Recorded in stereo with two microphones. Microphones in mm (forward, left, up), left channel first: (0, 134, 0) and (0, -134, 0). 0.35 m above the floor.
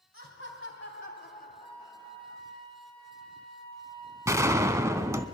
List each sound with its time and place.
0.1 s laughter: 55° left (ahead or behind), 2.5 m; by 2.4 s 10° left (ahead or behind), 1.7 m
1.6 s a flute: 5° left (ahead or behind), 5 m
4.3 s a gunshot: 10° right (ahead or behind), 0.6 m